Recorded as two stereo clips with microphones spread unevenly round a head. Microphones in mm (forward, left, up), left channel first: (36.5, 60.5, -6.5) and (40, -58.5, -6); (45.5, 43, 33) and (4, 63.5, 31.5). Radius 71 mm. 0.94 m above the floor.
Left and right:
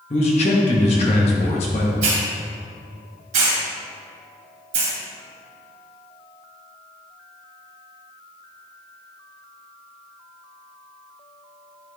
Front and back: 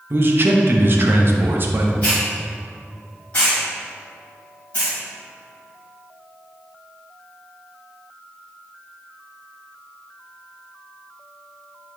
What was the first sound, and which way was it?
A man speaking, 130° left.